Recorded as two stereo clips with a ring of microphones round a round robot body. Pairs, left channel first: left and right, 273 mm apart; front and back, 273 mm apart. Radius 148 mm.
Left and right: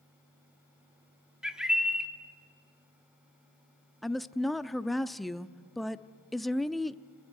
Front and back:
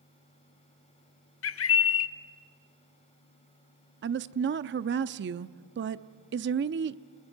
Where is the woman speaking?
Straight behind, 0.6 m.